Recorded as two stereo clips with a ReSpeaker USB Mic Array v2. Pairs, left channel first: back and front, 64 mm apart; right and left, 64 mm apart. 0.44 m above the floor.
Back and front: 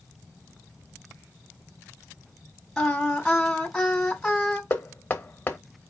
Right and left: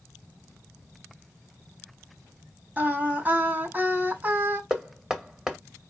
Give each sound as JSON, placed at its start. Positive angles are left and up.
{"t": 2.8, "sound": "singing", "azimuth_deg": 105, "distance_m": 1.5}
{"t": 4.7, "sound": "knocking", "azimuth_deg": 165, "distance_m": 1.0}